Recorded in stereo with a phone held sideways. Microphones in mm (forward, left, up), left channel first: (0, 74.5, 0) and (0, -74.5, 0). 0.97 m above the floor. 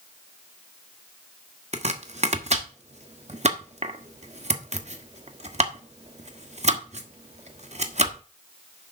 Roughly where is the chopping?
Right.